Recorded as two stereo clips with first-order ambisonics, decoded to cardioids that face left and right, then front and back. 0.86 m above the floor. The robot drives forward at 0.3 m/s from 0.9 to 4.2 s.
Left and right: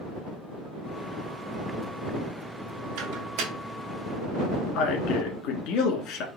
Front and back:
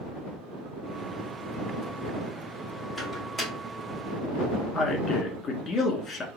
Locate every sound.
3.0 s a microwave: 85° right, 1.4 m; by 3.5 s 95° right, 1.4 m
4.8 s a man speaking: 65° left, 1.2 m